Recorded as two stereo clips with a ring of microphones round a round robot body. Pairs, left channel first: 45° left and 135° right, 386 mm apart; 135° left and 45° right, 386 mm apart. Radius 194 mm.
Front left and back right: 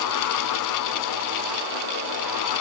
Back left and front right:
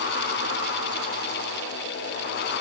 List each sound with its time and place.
Only background noise.